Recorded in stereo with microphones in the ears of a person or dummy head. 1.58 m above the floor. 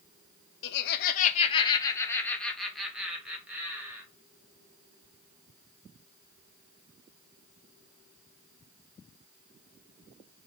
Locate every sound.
0.6 s laughter: 75° left (ahead or behind), 0.7 m; by 4.0 s 10° right (ahead or behind), 1.7 m